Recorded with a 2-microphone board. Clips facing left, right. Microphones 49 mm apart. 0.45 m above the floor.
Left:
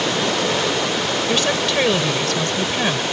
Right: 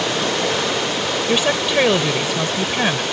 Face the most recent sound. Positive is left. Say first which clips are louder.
# right 3 dB
turn(degrees=-15)  # may be behind; listen again after turning